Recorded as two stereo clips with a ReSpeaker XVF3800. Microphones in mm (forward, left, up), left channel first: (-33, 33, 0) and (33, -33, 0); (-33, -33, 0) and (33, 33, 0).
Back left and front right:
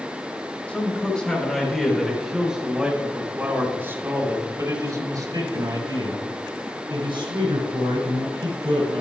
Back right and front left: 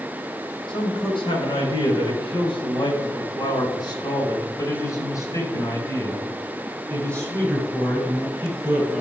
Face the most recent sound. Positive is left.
turn(degrees=-50)